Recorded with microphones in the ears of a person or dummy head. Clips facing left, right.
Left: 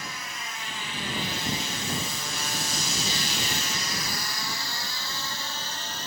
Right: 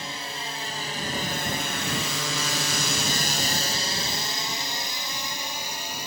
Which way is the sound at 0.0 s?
25° right (ahead or behind).